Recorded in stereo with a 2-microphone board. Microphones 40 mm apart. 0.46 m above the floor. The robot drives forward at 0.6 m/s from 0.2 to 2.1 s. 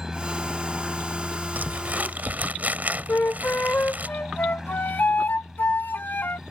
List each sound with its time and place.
0.0 s a helicopter: 10° right (ahead or behind)
1.6 s crumpling: 50° right (ahead or behind); by 4.1 s 45° right (ahead or behind)
3.1 s a flute: 55° left (ahead or behind)